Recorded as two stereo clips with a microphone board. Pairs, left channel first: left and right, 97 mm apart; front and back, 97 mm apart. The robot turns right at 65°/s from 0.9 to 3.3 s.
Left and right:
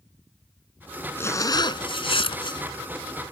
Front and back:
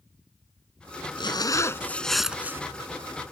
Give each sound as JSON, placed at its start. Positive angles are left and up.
{"t": 1.2, "sound": "a zipper", "azimuth_deg": 25}